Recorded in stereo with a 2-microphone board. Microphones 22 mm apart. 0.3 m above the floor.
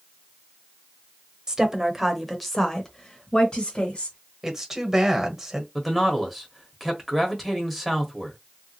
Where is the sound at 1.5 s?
30° right (ahead or behind), 1.0 m; by 4.2 s 50° left (ahead or behind), 1.4 m.